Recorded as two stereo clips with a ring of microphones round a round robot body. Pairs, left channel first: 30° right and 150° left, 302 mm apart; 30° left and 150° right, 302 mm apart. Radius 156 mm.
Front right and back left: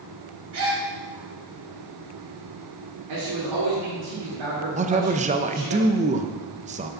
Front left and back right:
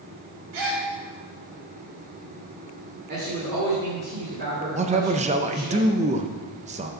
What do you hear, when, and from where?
0.5 s a gasp: 170° right, 3.5 m
3.1 s a man speaking: 150° left, 2.5 m
4.8 s a man speaking: straight behind, 0.6 m